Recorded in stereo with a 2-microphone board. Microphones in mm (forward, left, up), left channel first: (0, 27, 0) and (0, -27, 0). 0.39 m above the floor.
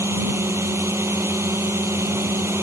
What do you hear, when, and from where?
0.0 s a drone: 55° right (ahead or behind)